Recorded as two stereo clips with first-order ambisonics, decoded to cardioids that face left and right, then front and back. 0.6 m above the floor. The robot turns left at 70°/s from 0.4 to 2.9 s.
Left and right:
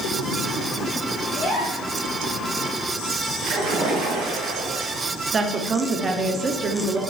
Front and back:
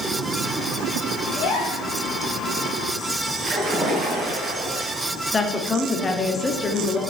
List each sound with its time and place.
1.3 s a gasp: 15° left, 3 m; by 1.9 s 20° right, 3 m
3.4 s a splash: 125° right, 2.5 m
5.3 s a woman speaking: 50° right, 0.6 m